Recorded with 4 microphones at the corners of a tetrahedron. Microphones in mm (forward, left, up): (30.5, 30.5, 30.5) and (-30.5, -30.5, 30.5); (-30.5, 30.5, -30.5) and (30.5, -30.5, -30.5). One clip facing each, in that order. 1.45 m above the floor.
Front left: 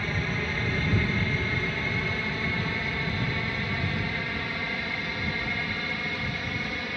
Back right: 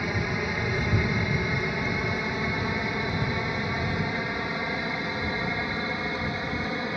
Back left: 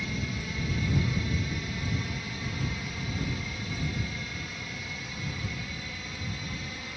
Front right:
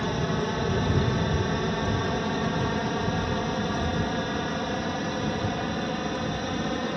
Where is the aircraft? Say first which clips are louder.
Back right 2 dB, front right 9 dB; 60° right; by 7.0 s 70° right.